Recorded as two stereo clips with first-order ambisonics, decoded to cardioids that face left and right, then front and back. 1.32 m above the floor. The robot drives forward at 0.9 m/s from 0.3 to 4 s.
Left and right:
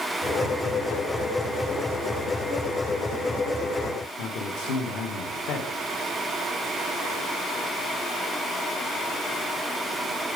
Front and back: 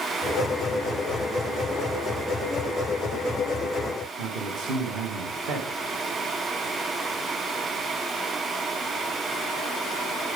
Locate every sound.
4.2 s a man speaking: 130° left, 1.3 m